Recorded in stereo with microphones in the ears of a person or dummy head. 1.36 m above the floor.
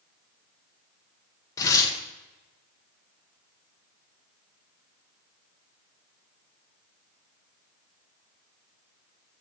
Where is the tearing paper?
20° left (ahead or behind), 1.1 m.